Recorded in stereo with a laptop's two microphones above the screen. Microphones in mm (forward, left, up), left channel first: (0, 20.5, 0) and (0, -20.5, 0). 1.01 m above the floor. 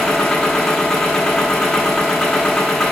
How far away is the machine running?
About 1.6 m.